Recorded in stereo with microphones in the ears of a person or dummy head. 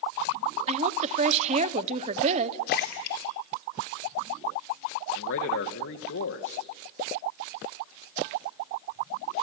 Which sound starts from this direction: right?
A woman speaking, at 0.7 s.